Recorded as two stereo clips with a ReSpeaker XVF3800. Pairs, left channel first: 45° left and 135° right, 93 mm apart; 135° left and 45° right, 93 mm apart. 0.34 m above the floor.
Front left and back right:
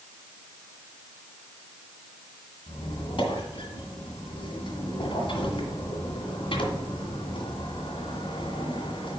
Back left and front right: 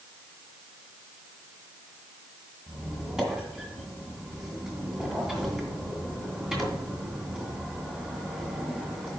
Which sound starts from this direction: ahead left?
A squeak, at 2.7 s.